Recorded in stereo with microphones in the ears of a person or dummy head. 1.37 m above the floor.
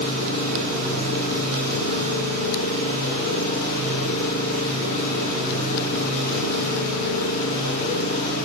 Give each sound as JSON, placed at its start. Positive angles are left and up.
{"t": 0.0, "sound": "an engine running", "side_deg": 55, "distance_m": 8.5}